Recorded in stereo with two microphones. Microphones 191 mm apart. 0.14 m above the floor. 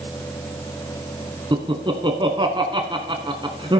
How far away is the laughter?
About 1.1 m.